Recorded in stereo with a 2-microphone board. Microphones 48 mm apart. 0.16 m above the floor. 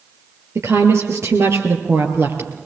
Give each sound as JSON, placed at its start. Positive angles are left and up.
{"t": 0.6, "sound": "a woman speaking", "side_deg": -70, "distance_m": 4.0}